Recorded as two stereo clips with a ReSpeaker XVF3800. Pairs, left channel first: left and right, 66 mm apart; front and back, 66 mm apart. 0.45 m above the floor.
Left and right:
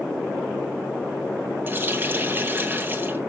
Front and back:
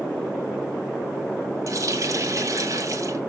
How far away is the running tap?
About 1.9 m.